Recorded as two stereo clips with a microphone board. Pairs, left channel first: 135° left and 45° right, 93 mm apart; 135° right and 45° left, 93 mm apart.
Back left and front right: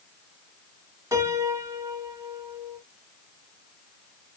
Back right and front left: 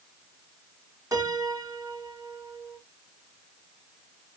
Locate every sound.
1.1 s a piano: 5° left, 1.4 m